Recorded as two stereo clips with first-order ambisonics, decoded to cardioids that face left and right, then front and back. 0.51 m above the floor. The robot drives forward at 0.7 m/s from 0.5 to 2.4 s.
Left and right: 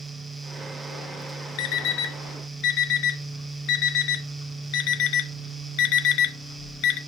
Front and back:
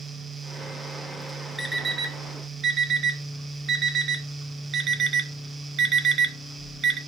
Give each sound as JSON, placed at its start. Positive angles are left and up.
{"t": 1.6, "sound": "an alarm clock", "azimuth_deg": 95, "distance_m": 0.9}